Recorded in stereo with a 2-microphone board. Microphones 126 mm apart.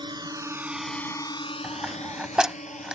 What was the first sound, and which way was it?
A drone, 40° right (ahead or behind).